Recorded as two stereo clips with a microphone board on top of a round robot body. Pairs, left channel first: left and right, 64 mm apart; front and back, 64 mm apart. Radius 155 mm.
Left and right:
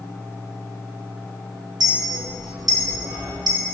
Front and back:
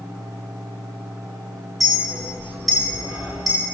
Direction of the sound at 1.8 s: 90° right.